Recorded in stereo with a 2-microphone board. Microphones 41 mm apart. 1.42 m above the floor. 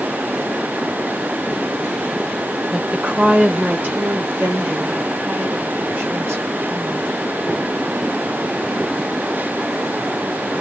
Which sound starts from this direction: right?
A woman speaking, at 2.7 s.